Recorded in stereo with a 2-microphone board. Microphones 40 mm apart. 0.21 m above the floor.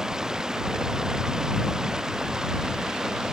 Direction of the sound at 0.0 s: 15° right (ahead or behind).